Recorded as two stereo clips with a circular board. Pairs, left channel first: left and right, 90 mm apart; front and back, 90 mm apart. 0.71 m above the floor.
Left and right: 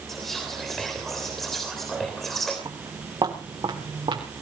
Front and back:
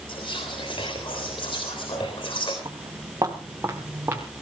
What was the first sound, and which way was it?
Whispering, 5° left.